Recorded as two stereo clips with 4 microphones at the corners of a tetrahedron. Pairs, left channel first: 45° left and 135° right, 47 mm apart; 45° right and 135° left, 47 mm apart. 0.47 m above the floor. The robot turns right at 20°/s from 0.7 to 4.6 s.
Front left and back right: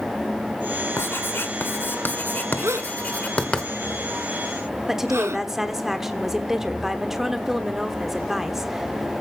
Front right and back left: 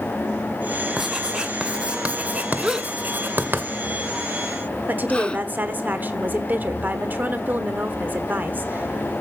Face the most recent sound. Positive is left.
turn(degrees=145)